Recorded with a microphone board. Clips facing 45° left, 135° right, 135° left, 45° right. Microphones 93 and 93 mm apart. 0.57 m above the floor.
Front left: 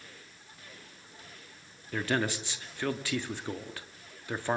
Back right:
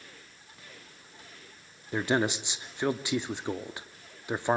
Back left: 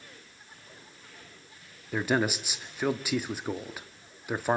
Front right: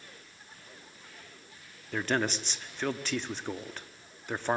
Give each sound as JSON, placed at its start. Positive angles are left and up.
{"t": 1.9, "sound": "a man speaking", "azimuth_deg": -160, "distance_m": 0.9}